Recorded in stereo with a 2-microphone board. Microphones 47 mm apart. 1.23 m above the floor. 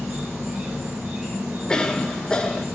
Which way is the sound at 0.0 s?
10° right (ahead or behind).